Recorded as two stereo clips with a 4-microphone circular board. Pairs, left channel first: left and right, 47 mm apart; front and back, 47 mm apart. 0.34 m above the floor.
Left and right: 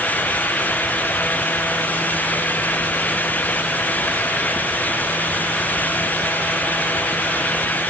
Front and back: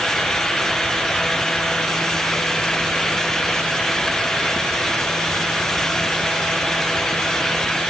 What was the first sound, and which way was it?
Only background noise.